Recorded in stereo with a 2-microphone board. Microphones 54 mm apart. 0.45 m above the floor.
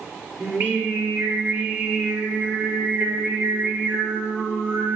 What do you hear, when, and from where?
0.4 s singing: 35° right (ahead or behind), 5.5 m